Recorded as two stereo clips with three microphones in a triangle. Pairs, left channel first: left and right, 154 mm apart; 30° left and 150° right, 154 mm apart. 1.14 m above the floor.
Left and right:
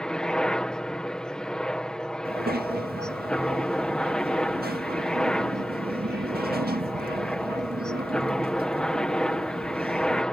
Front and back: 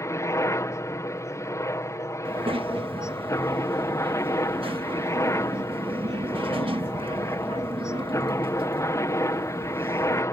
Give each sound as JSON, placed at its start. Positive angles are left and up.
{"t": 0.0, "sound": "a helicopter", "azimuth_deg": 15}
{"t": 2.2, "sound": "a child speaking", "azimuth_deg": -95}